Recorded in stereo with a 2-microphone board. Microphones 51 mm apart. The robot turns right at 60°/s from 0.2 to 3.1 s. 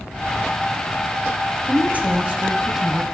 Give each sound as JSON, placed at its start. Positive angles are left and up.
{"t": 1.7, "sound": "a woman speaking", "azimuth_deg": -90, "distance_m": 1.1}